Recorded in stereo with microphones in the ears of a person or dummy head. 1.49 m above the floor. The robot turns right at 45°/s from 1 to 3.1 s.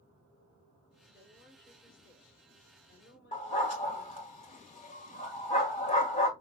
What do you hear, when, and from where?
1.1 s a woman speaking: 15° right, 4 m; by 4.3 s 75° left, 4 m
3.3 s a dog barking: 35° left (ahead or behind), 1.8 m